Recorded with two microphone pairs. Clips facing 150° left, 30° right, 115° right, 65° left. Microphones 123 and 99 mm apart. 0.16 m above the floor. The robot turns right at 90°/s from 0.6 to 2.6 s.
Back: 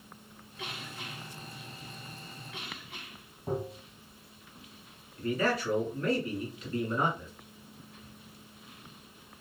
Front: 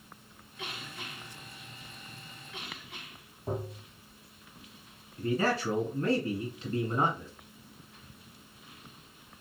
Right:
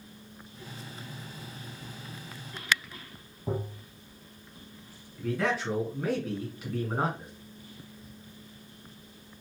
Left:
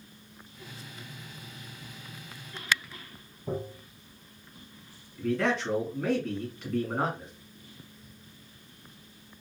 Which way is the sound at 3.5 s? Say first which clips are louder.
Back 2 dB, even; 115° right.